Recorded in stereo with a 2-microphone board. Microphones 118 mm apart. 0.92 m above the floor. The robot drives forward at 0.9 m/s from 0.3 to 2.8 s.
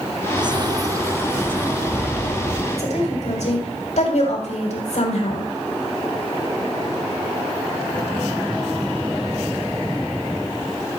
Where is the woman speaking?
75° left (ahead or behind), 6 m.